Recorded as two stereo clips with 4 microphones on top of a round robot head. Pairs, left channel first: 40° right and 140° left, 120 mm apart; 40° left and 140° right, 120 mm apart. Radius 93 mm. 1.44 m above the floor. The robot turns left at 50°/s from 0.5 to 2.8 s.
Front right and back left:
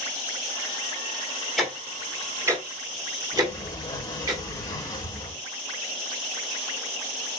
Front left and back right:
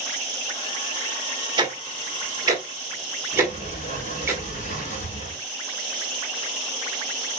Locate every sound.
1.6 s ticking: 130° right, 1.0 m; by 4.3 s 170° left, 1.0 m
3.3 s a sliding door: 15° left, 2.5 m